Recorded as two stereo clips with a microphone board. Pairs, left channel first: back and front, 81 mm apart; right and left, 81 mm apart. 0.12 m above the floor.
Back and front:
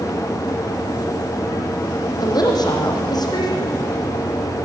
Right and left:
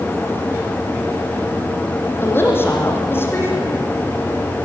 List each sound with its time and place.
2.2 s a woman speaking: 150° right, 6 m